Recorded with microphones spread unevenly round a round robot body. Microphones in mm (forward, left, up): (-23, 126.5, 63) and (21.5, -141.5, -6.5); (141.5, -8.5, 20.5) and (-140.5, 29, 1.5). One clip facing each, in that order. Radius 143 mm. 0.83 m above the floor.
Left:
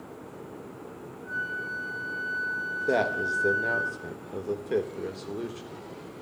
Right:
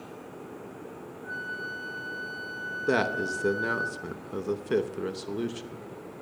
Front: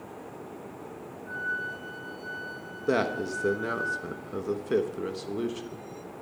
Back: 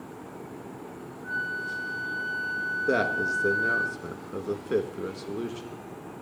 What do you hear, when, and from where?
1.2 s a flute: 135° right, 5.5 m
2.9 s a man speaking: 100° right, 1.0 m